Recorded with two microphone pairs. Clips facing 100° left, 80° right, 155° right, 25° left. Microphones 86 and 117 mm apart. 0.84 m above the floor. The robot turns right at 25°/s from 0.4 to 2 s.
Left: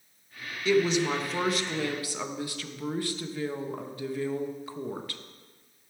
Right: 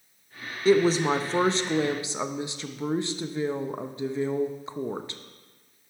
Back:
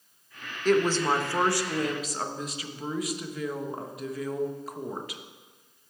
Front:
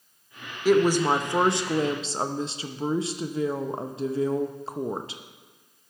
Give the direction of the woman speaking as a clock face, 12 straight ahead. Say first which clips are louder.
Right 4 dB, front 3 dB; 2 o'clock.